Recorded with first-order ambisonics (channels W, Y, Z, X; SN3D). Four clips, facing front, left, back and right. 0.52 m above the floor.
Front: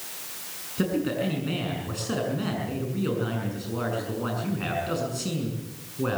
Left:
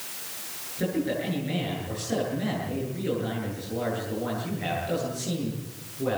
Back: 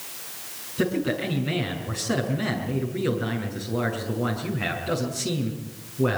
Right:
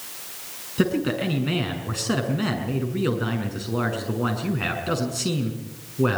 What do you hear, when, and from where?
0.8 s a man speaking: 95° right, 6.5 m